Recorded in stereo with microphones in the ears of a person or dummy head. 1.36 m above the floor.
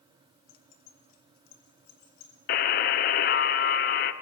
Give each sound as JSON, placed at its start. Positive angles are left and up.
{"t": 0.5, "sound": "keys jangling", "side_deg": 65, "distance_m": 0.7}
{"t": 2.5, "sound": "a buzzer", "side_deg": 40, "distance_m": 0.6}